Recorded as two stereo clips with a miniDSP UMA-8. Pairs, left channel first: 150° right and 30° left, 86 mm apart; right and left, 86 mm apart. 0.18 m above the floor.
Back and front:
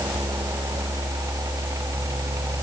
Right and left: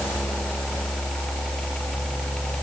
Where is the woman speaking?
No woman speaking in this recording.